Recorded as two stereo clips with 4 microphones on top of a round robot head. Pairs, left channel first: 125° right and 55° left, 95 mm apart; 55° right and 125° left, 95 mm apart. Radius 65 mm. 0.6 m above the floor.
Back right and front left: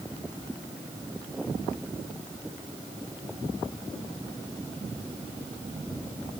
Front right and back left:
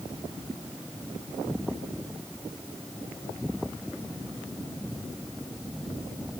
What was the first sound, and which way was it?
Only background noise.